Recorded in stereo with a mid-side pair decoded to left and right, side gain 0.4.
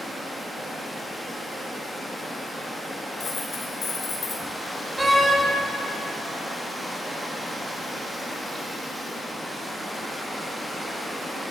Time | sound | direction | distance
0.0 | running water | 5° right | 1.1 m
3.2 | a dropped coin | 50° left | 1.8 m
5.0 | a door slam | 25° right | 1.3 m